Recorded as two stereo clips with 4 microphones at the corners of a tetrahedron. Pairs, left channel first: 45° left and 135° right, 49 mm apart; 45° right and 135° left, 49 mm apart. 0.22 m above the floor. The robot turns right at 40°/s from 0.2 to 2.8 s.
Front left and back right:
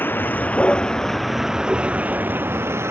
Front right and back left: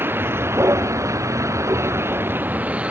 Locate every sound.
0.0 s a vehicle: 95° left; by 2.9 s 165° right